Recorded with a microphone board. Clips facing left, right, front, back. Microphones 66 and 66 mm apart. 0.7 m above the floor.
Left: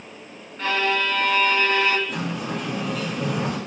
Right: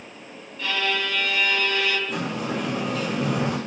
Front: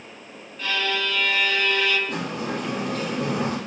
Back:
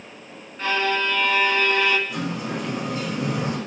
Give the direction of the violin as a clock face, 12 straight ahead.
8 o'clock.